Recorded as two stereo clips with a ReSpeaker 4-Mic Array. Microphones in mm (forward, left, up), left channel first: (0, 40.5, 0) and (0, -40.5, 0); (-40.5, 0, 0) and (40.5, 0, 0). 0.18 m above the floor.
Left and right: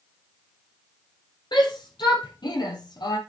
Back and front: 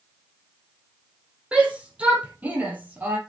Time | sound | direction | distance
1.5 | a shout | 75° left | 6 m